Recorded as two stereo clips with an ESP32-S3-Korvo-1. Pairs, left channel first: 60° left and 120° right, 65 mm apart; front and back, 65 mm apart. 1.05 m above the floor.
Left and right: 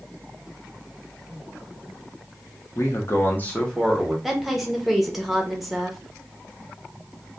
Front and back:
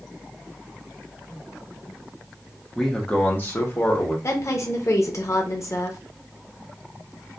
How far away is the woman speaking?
About 0.6 m.